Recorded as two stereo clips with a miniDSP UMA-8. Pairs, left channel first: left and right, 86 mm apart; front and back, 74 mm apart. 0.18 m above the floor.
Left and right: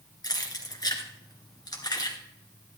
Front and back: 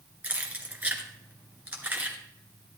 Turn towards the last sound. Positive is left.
turn(degrees=115)